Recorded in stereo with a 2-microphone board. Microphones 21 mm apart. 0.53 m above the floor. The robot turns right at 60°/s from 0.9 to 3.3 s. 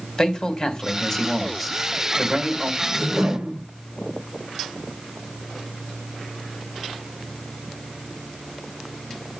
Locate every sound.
0.2 s a man speaking: 135° left, 2.5 m; by 2.7 s 115° right, 2.5 m
2.8 s a whoosh: 65° right (ahead or behind), 1.3 m; by 3.6 s 75° right (ahead or behind), 1.3 m